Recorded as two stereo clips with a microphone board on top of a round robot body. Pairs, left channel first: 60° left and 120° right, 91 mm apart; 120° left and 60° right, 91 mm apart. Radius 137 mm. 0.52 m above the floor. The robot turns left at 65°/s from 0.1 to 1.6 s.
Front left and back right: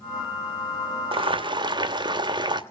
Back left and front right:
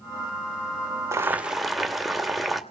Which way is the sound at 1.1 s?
120° right.